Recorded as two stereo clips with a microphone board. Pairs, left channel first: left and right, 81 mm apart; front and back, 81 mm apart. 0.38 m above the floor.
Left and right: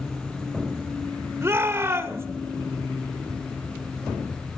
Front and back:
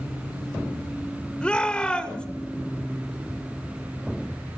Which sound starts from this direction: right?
A shout, at 1.4 s.